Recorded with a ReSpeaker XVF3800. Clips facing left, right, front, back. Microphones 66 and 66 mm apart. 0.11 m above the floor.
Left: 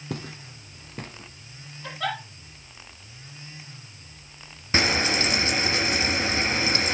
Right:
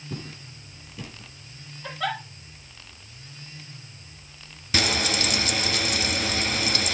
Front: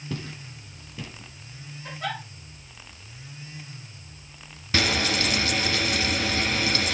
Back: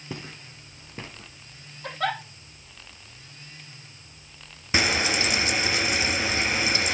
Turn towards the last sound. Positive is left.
turn(degrees=125)